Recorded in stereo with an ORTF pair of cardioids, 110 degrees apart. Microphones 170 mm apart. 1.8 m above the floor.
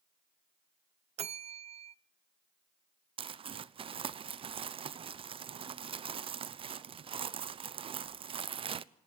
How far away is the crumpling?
About 0.7 m.